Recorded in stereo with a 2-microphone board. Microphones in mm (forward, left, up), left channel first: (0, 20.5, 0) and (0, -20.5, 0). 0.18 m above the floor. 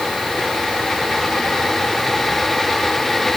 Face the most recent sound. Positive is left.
No sound to turn to.